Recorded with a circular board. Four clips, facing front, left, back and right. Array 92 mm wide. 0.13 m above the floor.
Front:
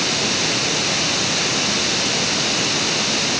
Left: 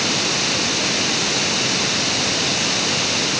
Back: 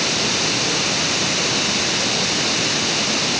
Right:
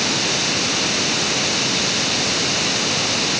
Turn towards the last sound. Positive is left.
No sound to turn to.